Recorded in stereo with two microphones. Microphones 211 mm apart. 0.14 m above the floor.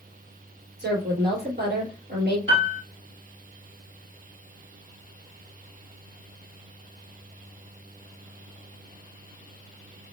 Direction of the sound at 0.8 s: 55° right (ahead or behind).